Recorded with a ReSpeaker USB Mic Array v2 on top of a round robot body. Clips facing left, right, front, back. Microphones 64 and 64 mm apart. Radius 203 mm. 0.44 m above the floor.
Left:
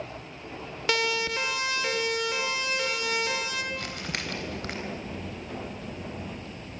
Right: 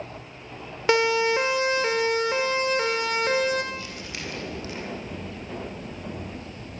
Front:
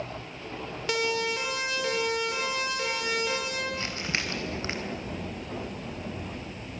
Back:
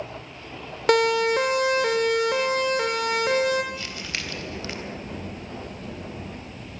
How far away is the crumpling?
About 4 m.